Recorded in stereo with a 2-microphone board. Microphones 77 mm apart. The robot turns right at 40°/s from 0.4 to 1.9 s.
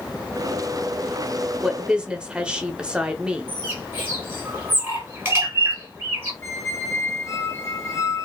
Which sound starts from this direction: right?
A bird, at 3.5 s.